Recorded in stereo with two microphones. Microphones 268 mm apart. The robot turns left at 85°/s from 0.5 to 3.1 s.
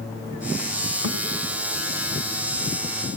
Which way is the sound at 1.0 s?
60° right (ahead or behind).